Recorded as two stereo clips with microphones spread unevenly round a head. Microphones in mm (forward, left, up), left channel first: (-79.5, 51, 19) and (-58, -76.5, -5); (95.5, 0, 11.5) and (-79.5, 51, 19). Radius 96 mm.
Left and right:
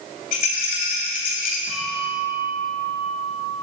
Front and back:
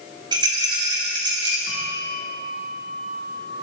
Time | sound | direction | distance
0.3 | a rattle | 100° left | 3 m
1.7 | a bell | 35° right | 1.8 m